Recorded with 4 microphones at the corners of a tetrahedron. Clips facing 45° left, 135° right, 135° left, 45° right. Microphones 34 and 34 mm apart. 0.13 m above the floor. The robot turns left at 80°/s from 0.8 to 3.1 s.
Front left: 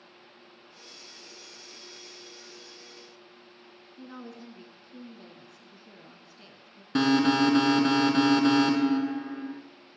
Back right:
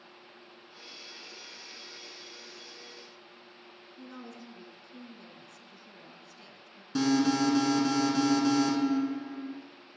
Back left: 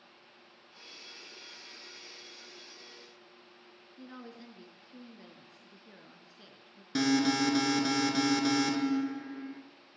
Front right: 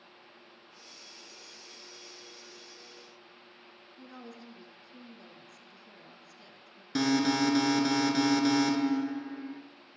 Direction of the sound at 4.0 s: 105° left.